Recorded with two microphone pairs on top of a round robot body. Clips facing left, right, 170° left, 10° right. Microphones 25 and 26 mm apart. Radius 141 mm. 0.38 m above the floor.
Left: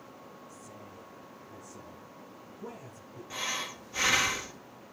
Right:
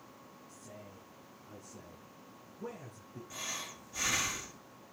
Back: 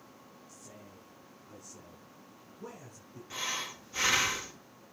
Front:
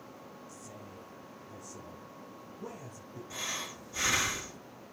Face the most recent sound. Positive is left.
turn(degrees=125)